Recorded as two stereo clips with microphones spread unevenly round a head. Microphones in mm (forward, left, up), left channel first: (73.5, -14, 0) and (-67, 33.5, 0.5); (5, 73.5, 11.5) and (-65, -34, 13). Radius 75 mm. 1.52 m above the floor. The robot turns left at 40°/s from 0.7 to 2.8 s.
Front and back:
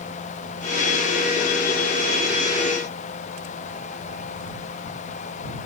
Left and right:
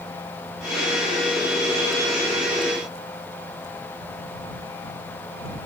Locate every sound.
Only background noise.